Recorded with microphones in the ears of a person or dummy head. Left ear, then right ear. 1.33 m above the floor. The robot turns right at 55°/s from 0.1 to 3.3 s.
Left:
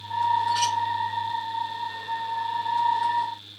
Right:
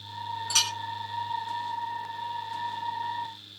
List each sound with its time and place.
0.5 s a clink: 70° right (ahead or behind), 7.5 m; by 0.7 s 80° right, 7.5 m